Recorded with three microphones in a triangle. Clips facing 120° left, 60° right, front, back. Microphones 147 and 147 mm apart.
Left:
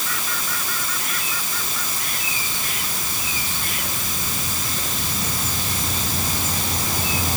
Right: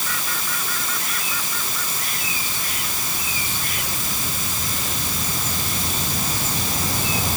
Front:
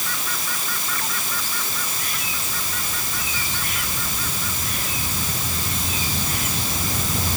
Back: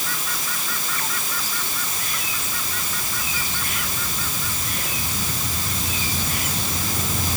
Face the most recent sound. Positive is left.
No sound to turn to.